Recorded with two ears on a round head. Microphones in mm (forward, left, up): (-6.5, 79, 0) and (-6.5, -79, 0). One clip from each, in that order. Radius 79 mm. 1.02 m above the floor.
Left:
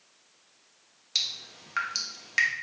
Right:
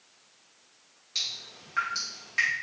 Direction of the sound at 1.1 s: 60° left (ahead or behind).